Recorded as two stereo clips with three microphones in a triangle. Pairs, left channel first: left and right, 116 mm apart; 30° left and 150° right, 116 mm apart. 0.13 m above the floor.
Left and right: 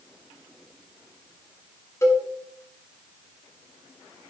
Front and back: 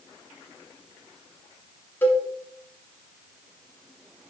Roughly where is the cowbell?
Left.